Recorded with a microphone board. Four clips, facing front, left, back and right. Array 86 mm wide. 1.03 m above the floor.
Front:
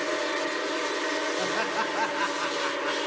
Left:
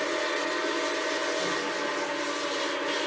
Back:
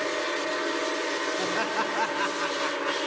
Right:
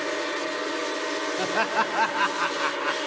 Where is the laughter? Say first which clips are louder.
Right 5 dB, even; 95° right, 2.5 m; by 3.0 s 90° right, 1.6 m.